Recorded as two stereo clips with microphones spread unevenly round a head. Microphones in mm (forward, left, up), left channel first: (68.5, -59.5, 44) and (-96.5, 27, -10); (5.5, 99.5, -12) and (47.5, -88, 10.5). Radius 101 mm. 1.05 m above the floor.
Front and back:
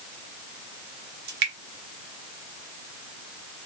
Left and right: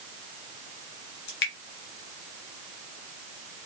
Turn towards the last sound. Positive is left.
turn(degrees=135)